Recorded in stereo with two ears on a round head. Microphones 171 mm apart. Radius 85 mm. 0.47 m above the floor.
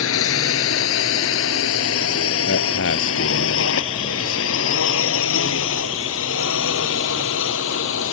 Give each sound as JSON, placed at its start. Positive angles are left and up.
{"t": 0.0, "sound": "a drone", "side_deg": 80}
{"t": 2.5, "sound": "a man speaking", "side_deg": 70}